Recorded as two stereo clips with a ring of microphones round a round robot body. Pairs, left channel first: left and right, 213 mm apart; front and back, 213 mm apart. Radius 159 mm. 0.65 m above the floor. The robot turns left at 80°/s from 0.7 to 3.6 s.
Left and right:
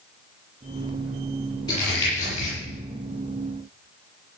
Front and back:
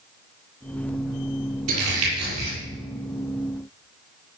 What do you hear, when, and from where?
1.7 s crumpling: 165° left, 8.5 m; by 2.5 s 100° left, 8.5 m